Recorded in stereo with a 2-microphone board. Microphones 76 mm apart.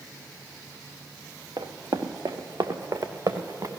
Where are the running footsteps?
80° right, 1.5 m; by 3.7 s 60° right (ahead or behind), 1.8 m.